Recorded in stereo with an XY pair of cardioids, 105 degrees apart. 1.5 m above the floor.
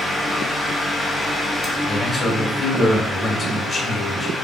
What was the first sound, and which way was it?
A fan, 35° left.